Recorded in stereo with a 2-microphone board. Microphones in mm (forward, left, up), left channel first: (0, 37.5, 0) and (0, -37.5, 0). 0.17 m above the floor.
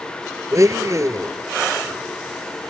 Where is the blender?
45° right (ahead or behind), 0.9 m.